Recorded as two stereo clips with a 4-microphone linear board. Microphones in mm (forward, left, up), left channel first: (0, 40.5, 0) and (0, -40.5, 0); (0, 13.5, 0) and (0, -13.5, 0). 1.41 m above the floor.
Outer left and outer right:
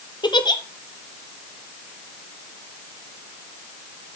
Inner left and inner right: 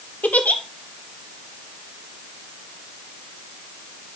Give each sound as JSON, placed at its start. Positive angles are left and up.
{"t": 0.2, "sound": "a giggle", "side_deg": 65, "distance_m": 1.0}